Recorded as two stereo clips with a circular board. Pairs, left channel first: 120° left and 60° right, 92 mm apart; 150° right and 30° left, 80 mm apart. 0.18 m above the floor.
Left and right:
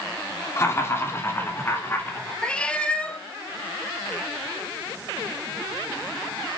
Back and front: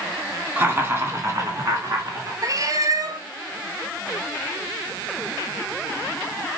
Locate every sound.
0.6 s laughter: 80° left, 2.0 m; by 2.3 s 55° left, 3 m
2.4 s a cat meowing: 45° left, 0.6 m